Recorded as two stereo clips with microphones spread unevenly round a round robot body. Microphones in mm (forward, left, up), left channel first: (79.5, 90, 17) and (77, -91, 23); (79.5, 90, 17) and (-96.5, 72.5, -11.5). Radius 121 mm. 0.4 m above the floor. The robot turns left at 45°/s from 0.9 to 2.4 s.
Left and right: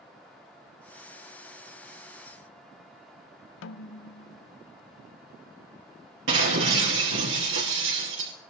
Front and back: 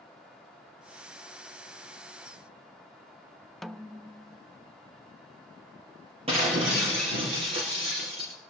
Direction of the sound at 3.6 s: 95° left.